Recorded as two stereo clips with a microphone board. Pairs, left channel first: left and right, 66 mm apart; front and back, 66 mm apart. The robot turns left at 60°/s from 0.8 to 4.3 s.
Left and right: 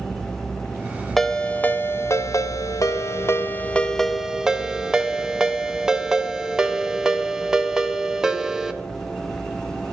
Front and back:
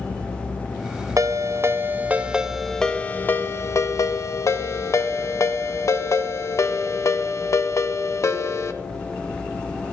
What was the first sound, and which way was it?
A ringtone, 175° left.